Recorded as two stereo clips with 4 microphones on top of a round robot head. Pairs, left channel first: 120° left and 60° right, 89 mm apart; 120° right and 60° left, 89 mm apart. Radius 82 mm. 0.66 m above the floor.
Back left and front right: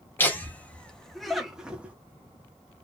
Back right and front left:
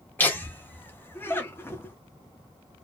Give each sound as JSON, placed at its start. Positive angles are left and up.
{"t": 0.2, "sound": "laughter", "azimuth_deg": 180, "distance_m": 1.5}